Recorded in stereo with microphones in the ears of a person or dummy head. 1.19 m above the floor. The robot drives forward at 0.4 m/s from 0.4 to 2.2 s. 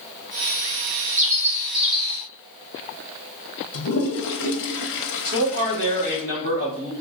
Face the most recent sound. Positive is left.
turn(degrees=-40)  # may be behind; listen again after turning